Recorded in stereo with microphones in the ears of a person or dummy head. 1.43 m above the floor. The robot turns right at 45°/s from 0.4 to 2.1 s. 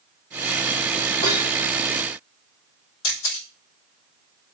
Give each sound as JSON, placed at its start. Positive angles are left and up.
{"t": 1.2, "sound": "dishes clattering", "side_deg": 35, "distance_m": 2.5}
{"t": 3.0, "sound": "a camera shutter", "side_deg": 70, "distance_m": 5.0}